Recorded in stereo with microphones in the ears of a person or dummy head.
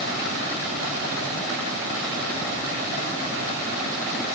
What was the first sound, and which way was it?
Only background noise.